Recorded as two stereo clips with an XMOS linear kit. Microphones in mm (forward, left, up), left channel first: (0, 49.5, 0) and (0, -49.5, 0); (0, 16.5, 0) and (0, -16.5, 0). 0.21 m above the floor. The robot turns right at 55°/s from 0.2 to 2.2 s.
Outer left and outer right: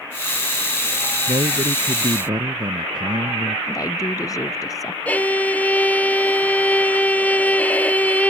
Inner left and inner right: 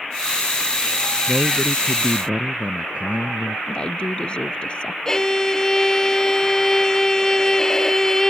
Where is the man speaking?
100° right; by 3.6 s 50° right.